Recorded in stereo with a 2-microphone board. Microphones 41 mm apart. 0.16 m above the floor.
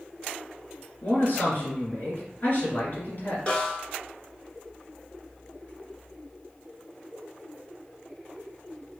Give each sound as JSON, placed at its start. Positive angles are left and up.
{"t": 1.0, "sound": "a man speaking", "side_deg": 50, "distance_m": 2.5}
{"t": 3.5, "sound": "a snare drum", "side_deg": 25, "distance_m": 1.4}